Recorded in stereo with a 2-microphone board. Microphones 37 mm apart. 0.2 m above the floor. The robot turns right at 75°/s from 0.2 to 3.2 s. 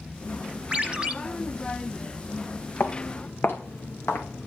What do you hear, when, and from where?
0.7 s a ringtone: 30° right (ahead or behind), 0.9 m; by 1.1 s 20° right (ahead or behind), 0.9 m
2.8 s footsteps: 80° left, 2 m; by 4.5 s 85° left, 2.5 m